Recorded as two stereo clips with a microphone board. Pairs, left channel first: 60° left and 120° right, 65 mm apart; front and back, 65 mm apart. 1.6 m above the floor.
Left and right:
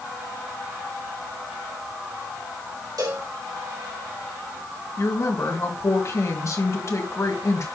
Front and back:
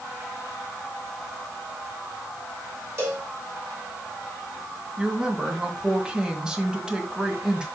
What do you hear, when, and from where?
3.0 s a cowbell: 130° right, 3.5 m
5.0 s a woman speaking: 100° left, 1.7 m